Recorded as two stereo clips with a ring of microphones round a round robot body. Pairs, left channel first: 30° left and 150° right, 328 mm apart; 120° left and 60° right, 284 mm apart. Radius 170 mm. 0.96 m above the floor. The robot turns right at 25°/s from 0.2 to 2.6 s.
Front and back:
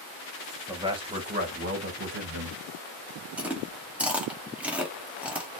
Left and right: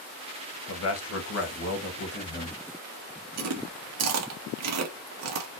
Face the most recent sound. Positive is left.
turn(degrees=-65)